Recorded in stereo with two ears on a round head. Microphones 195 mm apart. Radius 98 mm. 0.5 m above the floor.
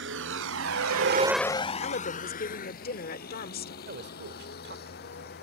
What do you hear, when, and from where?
0.0 s a vehicle: 60° right (ahead or behind); by 5.5 s 50° left (ahead or behind)
1.8 s a woman speaking: 45° left (ahead or behind)
3.9 s a man speaking: 50° right (ahead or behind)